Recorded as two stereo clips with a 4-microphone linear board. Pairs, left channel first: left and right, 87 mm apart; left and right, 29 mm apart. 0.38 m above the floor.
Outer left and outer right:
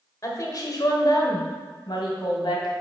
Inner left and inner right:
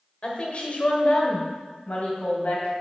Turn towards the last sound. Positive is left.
turn(degrees=60)  # may be behind; listen again after turning